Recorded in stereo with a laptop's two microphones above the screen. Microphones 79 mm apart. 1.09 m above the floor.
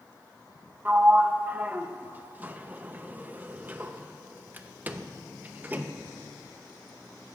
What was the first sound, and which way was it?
A sliding door, 25° right (ahead or behind).